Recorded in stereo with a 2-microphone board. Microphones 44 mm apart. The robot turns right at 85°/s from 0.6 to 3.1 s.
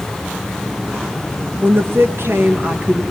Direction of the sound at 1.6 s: 145° right.